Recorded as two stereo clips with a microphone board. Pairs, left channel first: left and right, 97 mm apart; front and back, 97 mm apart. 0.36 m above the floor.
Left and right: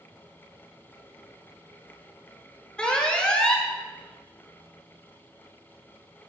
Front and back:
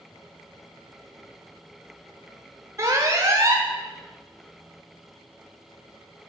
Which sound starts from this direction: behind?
An alarm, at 2.8 s.